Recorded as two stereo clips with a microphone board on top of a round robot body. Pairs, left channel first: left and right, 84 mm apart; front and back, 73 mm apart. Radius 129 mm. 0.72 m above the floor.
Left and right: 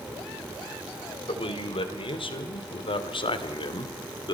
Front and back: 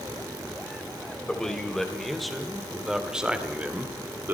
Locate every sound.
1.3 s a man speaking: 80° left, 3.5 m; by 4.3 s 115° left, 2 m